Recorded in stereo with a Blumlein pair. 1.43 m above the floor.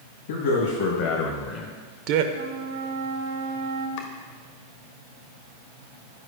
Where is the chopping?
50° left, 1.0 m.